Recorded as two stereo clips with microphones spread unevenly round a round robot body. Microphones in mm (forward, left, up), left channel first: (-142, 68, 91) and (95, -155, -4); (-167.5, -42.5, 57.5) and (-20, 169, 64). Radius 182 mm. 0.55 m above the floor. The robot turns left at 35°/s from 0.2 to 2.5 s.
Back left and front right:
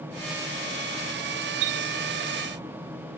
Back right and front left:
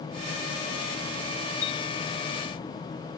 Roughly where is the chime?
Ahead right.